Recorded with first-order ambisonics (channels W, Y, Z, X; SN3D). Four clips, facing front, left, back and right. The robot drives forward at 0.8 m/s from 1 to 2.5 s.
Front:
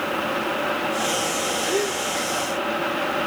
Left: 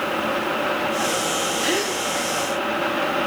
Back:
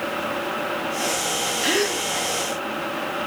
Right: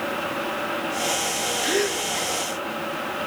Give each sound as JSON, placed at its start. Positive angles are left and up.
{"t": 1.6, "sound": "a gasp", "azimuth_deg": 150, "distance_m": 1.4}